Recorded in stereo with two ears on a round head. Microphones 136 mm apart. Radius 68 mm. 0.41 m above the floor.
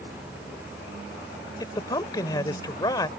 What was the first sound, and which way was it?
A man speaking, 25° left (ahead or behind).